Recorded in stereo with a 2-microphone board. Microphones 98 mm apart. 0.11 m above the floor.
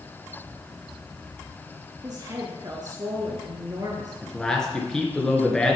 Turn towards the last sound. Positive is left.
turn(degrees=5)  # may be behind; listen again after turning